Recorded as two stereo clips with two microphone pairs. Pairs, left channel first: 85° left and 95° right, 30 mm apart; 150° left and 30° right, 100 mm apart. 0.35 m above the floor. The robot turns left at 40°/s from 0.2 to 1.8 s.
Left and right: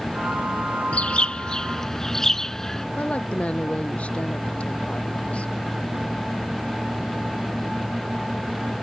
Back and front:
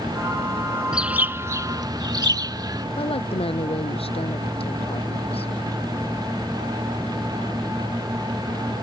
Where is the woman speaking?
130° left.